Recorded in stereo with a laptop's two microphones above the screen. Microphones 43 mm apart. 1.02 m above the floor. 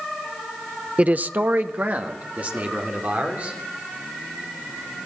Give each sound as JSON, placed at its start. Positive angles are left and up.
{"t": 1.0, "sound": "a man speaking", "side_deg": -30, "distance_m": 0.6}